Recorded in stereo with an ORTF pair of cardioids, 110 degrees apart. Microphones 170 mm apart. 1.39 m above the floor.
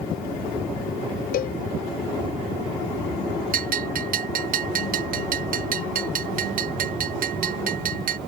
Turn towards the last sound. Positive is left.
turn(degrees=-55)